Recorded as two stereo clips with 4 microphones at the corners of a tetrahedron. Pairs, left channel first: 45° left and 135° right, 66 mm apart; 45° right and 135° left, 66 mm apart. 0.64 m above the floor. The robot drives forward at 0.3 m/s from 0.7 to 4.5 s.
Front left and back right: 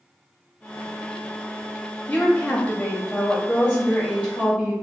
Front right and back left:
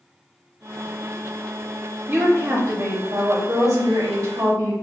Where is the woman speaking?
100° left, 0.6 m; by 4.7 s 155° left, 1.0 m.